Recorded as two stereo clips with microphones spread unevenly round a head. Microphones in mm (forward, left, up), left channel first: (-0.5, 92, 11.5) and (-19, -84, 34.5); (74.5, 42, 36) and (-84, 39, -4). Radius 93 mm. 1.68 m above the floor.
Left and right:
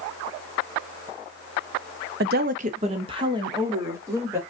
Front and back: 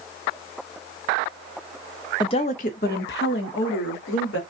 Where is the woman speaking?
65° right, 0.6 m; by 4.4 s 20° right, 1.5 m.